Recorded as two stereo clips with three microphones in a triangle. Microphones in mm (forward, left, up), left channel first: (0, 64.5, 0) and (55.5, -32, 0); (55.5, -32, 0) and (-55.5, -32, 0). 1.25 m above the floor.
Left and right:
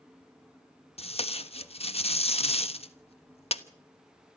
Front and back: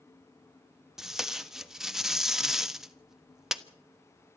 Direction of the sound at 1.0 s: 95° left.